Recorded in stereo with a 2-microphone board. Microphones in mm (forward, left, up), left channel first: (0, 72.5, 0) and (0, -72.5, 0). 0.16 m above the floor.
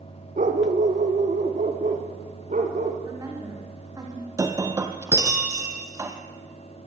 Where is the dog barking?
65° right (ahead or behind), 3.5 m; by 2.9 s 60° right (ahead or behind), 5 m.